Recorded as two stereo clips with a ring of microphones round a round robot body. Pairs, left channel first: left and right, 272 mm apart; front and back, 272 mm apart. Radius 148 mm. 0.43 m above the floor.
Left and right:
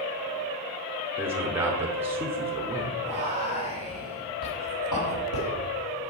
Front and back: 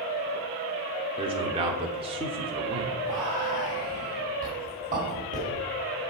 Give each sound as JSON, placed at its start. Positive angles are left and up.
{"t": 1.2, "sound": "a man speaking", "azimuth_deg": -155, "distance_m": 0.7}
{"t": 3.0, "sound": "whispering", "azimuth_deg": 125, "distance_m": 2.5}